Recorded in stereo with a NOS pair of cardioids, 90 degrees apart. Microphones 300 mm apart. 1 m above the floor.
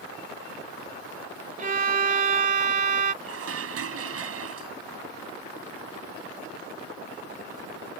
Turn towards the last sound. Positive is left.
turn(degrees=-50)